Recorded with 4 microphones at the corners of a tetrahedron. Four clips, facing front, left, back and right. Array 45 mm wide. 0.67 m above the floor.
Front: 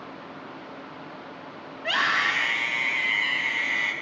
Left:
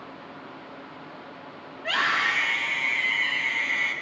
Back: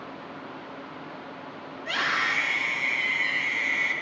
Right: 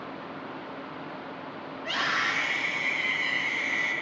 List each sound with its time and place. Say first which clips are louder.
1.8 s a scream: left 4 dB, front 3 dB; 25° left, 4.5 m